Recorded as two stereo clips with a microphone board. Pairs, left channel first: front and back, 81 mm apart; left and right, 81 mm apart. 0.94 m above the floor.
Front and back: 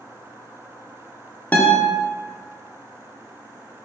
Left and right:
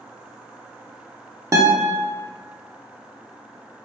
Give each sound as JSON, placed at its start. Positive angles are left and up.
{"t": 1.5, "sound": "a guitar", "azimuth_deg": -60, "distance_m": 0.6}